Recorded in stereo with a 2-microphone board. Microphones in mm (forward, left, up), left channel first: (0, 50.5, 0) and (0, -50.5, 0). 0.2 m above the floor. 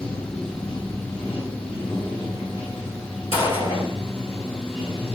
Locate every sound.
0.0 s running water: 75° left (ahead or behind), 4.5 m
3.3 s a gunshot: 75° left (ahead or behind), 3 m